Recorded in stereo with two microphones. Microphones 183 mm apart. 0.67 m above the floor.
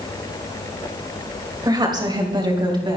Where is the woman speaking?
20° right (ahead or behind), 3 m; by 3.0 s 25° right (ahead or behind), 4.5 m.